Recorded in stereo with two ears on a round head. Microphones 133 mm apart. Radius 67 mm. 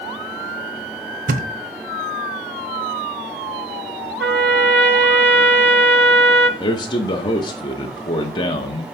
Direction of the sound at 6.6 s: 30° left (ahead or behind).